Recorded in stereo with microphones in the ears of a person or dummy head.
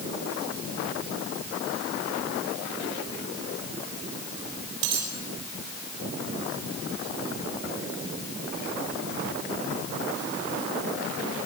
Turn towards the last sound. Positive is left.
turn(degrees=-70)  # may be behind; listen again after turning